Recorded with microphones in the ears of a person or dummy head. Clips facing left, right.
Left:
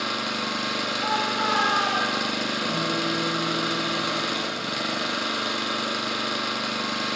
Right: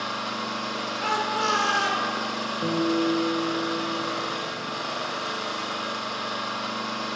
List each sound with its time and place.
0.0 s an engine running: 30° left (ahead or behind), 1.2 m
1.0 s a shout: 45° right (ahead or behind), 5.5 m
2.6 s a guitar: 55° right (ahead or behind), 2.5 m